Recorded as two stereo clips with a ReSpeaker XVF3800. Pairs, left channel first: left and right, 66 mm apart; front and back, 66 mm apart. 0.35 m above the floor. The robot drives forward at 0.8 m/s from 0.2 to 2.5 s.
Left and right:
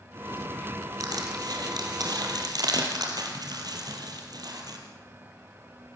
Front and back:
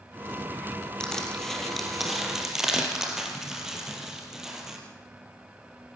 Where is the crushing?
80° right, 4 m; by 4.8 s 95° right, 4 m.